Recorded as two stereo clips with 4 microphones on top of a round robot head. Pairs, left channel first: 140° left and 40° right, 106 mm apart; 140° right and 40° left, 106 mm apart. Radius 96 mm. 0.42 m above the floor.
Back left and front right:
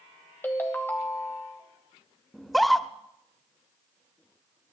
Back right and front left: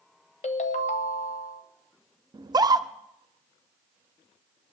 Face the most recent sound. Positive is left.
turn(degrees=50)